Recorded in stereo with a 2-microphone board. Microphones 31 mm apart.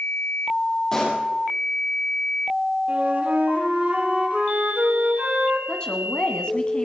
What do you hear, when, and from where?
0.9 s a pop: 15° left (ahead or behind), 5 m
2.9 s a flute: 55° right (ahead or behind), 2.5 m
5.7 s a woman speaking: 30° left (ahead or behind), 1.8 m